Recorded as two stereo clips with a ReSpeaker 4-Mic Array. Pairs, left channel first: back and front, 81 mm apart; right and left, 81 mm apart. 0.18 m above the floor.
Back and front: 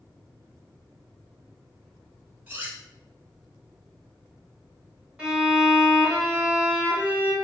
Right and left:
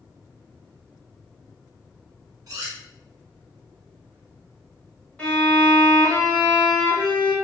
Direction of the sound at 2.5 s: 60° left.